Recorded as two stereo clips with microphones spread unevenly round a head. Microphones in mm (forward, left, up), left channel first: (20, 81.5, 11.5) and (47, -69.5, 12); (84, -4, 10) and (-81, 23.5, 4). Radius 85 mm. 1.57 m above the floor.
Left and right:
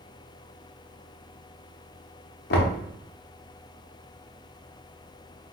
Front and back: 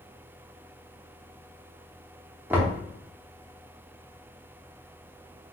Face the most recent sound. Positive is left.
turn(degrees=90)